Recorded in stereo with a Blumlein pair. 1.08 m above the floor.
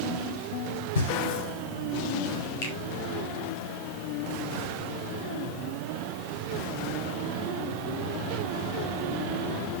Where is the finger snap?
50° left, 4 m.